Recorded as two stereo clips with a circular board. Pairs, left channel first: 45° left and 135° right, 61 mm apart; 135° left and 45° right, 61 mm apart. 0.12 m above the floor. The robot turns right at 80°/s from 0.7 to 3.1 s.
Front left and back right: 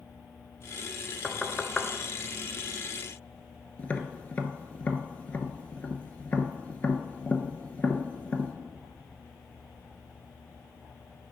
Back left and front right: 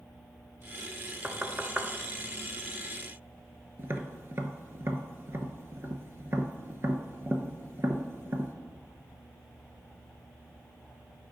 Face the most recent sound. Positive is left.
turn(degrees=-15)